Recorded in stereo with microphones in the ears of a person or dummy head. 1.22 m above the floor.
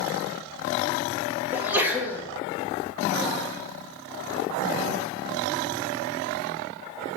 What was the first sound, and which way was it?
A sneeze, 10° right (ahead or behind).